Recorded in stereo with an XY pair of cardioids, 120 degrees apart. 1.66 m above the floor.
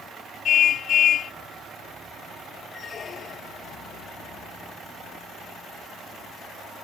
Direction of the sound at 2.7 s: 40° left.